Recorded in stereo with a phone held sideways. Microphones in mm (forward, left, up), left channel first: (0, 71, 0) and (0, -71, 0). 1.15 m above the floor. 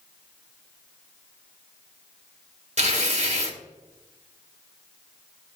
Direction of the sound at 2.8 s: 50° right (ahead or behind).